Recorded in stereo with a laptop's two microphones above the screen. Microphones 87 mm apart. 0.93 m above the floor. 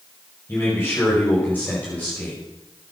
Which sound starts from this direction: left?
A man speaking, at 0.5 s.